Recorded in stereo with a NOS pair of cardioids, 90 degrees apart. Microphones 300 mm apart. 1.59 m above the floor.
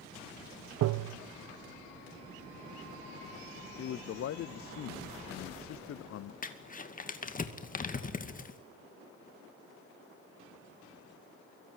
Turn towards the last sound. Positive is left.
turn(degrees=25)